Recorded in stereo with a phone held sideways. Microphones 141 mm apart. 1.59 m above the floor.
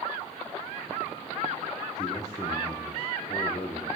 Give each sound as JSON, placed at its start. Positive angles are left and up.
{"t": 2.0, "sound": "a man speaking", "side_deg": 25, "distance_m": 1.0}